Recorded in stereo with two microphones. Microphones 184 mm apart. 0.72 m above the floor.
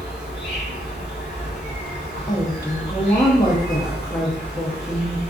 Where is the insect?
60° left (ahead or behind), 1.2 m.